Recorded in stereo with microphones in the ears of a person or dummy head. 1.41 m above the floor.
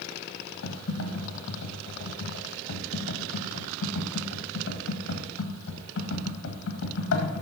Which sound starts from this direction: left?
Typing on a keyboard, at 0.6 s.